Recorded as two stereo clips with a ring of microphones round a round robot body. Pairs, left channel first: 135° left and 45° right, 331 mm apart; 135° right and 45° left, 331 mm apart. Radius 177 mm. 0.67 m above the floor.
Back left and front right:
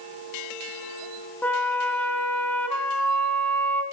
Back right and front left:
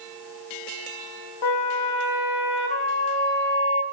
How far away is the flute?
About 2 m.